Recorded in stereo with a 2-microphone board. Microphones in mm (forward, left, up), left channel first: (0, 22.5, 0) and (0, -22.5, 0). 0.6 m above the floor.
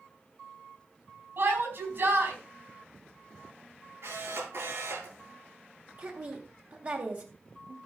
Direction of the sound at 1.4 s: 55° right (ahead or behind).